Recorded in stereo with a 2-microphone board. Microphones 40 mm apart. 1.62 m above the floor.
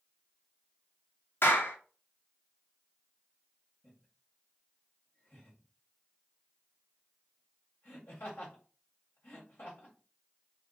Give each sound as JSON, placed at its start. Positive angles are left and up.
{"t": 1.4, "sound": "a clap", "side_deg": 70, "distance_m": 1.0}
{"t": 3.8, "sound": "laughter", "side_deg": 75, "distance_m": 1.8}